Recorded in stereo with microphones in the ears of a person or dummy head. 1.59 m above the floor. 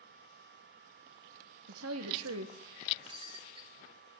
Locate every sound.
1.7 s a woman speaking: 80° right, 2.0 m
3.1 s breaking glass: 30° right (ahead or behind), 3 m